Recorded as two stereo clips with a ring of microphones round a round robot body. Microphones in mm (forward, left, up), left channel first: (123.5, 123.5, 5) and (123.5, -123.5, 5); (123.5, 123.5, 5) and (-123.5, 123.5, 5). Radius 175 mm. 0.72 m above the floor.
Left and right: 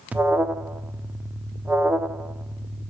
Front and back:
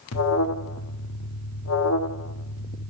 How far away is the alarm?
About 1.0 m.